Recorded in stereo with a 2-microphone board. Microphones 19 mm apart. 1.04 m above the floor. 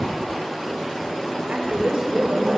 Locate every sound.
1.5 s a woman speaking: 85° right, 3 m; by 2.6 s 80° right, 4 m